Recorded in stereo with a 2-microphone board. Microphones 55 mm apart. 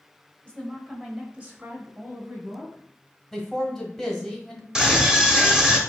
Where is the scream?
10° right (ahead or behind), 0.9 m.